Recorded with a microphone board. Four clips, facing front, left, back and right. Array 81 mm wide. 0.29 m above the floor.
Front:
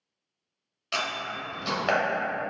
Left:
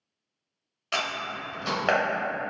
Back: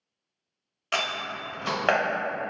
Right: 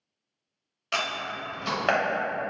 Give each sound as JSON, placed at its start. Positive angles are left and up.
{"t": 0.9, "sound": "a door slam", "azimuth_deg": -175, "distance_m": 0.9}